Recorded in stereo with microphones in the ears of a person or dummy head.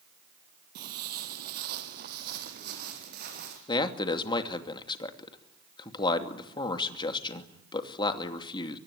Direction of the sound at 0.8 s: 50° right (ahead or behind).